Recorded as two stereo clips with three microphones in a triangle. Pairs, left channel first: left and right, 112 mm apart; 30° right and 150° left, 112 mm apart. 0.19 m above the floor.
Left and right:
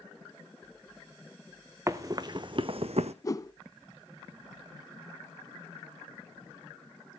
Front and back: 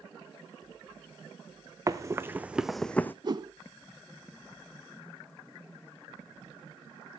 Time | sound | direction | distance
1.9 | running footsteps | 150° right | 1.1 m
3.2 | a whoosh | 130° left | 0.5 m